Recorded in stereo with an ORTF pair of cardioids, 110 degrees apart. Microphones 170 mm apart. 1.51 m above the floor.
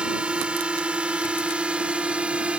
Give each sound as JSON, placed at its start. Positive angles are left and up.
{"t": 0.0, "sound": "a drone", "azimuth_deg": -5}